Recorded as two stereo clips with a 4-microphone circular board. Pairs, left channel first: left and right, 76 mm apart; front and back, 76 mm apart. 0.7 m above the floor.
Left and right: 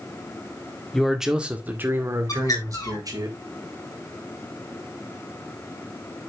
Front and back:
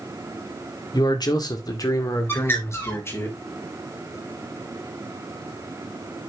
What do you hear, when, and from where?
0.9 s a man speaking: 5° left, 1.9 m; by 3.3 s 55° right, 3.5 m
2.3 s a bird: 55° left, 2.5 m